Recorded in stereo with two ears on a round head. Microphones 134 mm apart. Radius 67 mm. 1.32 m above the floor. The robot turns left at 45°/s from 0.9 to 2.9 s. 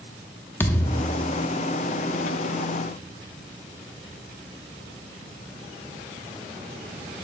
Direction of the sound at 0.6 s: 15° left (ahead or behind).